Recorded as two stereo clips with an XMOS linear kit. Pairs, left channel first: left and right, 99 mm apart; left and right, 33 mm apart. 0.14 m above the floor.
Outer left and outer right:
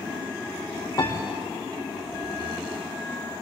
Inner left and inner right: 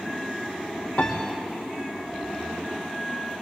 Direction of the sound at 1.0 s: 30° left (ahead or behind).